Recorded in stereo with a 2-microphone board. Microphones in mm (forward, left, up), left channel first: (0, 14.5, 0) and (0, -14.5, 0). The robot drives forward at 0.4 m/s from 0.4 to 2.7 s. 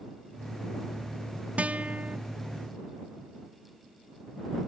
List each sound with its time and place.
1.6 s a guitar: 45° right (ahead or behind); by 2.2 s 50° right (ahead or behind)